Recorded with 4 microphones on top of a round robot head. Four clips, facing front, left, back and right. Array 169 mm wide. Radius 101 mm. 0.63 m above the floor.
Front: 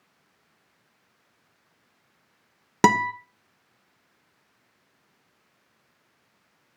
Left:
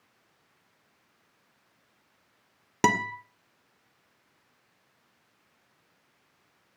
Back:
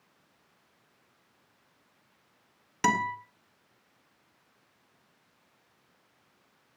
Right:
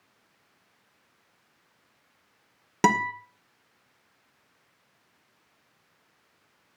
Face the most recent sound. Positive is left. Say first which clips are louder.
# right 2 dB, front 7 dB
turn(degrees=5)